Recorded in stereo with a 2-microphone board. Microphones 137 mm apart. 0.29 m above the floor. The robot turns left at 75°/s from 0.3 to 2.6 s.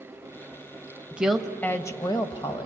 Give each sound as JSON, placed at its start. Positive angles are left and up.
{"t": 1.1, "sound": "a woman speaking", "azimuth_deg": -165, "distance_m": 1.1}